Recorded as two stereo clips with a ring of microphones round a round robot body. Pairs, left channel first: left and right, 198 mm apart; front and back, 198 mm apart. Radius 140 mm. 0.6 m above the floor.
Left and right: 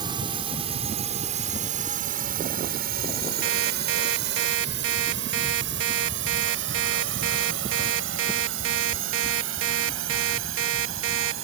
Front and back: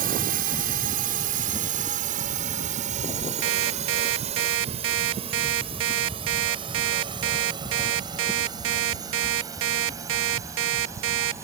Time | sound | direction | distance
0.0 | a drone | 155° right | ?
3.4 | an alarm clock | 135° right | ?